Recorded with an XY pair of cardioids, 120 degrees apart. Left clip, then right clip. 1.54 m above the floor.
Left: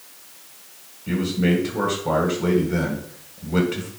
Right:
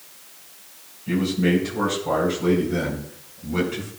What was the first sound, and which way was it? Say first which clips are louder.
A man speaking: right 1 dB; 25° left.